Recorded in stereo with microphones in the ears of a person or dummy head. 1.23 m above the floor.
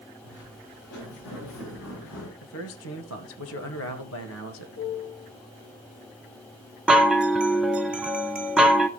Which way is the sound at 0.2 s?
65° left (ahead or behind).